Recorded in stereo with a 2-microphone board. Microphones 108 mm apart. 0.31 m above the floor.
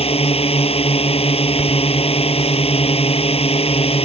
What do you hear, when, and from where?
0.0 s a drone: 65° left (ahead or behind)